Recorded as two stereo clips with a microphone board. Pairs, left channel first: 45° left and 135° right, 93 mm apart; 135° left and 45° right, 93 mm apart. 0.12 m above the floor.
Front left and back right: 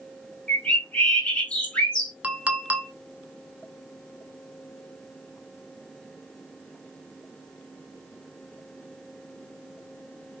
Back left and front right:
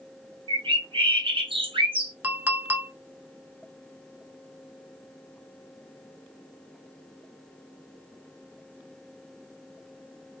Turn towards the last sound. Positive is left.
turn(degrees=-85)